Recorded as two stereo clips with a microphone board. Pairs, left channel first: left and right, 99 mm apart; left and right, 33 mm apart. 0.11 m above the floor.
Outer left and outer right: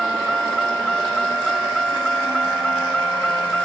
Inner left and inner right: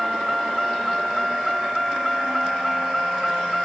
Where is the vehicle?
5° left (ahead or behind); by 3.6 s 10° left (ahead or behind).